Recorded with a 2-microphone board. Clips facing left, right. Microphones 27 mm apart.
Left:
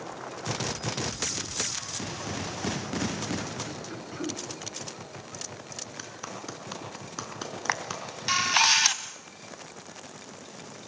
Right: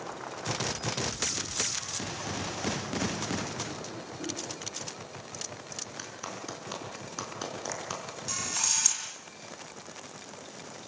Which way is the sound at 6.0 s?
10° left (ahead or behind).